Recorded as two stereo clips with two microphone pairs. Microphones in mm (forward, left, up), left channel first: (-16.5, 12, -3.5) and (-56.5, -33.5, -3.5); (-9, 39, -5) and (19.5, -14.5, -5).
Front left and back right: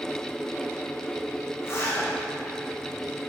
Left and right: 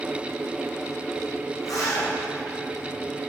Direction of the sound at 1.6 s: 95° left.